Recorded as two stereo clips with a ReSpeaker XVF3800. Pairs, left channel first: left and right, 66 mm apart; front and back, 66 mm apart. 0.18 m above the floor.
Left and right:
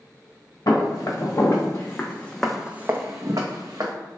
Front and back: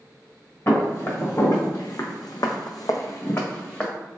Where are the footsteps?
55° left, 1.4 m; by 3.9 s 75° right, 0.9 m.